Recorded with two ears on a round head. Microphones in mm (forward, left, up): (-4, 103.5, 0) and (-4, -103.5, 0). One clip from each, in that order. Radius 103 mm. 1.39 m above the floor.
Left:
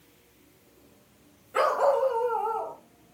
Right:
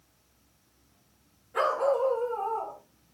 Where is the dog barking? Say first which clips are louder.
Left 3 dB; 35° left (ahead or behind), 2.5 m; by 2.8 s 60° left (ahead or behind), 2.5 m.